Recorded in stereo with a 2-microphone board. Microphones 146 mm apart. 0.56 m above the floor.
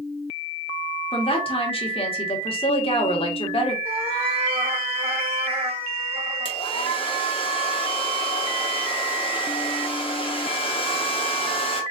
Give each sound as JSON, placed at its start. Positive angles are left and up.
{"t": 1.1, "sound": "a woman speaking", "side_deg": 40, "distance_m": 1.4}
{"t": 3.9, "sound": "a cat meowing", "side_deg": -40, "distance_m": 1.8}
{"t": 6.5, "sound": "a hair dryer", "side_deg": 40, "distance_m": 1.5}